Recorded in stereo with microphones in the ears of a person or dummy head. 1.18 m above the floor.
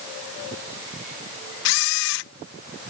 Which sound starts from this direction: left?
A camera shutter, at 1.6 s.